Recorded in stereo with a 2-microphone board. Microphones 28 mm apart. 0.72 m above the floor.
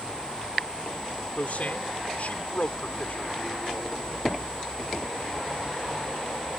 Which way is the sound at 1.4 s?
60° left (ahead or behind).